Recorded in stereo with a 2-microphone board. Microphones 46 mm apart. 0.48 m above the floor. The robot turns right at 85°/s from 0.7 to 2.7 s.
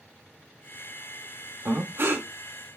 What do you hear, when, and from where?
1.6 s breathing: 115° right, 0.6 m; by 2.3 s 60° right, 0.6 m